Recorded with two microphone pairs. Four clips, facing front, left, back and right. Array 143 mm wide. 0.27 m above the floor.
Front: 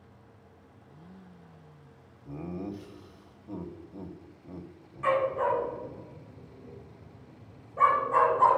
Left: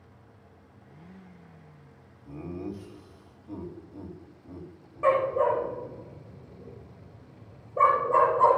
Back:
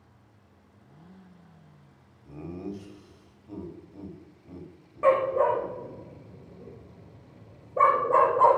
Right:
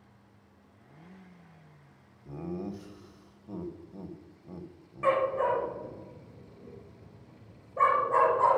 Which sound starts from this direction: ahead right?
Laughter, at 2.2 s.